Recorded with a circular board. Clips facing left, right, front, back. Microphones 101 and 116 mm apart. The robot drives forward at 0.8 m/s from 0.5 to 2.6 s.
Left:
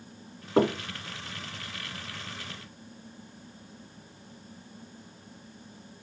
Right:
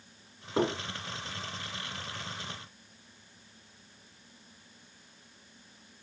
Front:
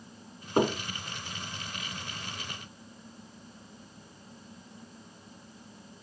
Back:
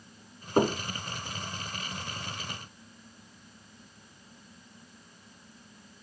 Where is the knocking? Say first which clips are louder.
Left 5 dB, back 1 dB; 95° left, 1.0 m; by 0.8 s 120° left, 1.1 m.